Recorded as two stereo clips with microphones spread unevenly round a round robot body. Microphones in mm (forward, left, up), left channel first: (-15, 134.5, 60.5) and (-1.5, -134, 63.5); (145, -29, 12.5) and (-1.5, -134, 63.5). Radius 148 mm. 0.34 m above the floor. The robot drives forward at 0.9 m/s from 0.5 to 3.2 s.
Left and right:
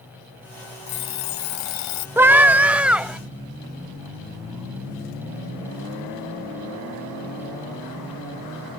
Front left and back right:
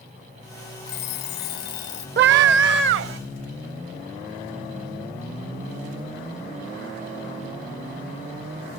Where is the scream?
165° right; by 3.2 s 175° right.